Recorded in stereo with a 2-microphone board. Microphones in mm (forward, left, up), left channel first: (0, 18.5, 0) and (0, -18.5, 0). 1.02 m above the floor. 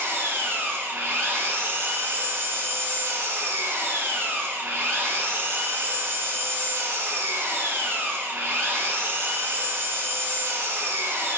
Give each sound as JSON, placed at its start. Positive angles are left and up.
{"t": 0.0, "sound": "an engine running", "side_deg": -75, "distance_m": 1.2}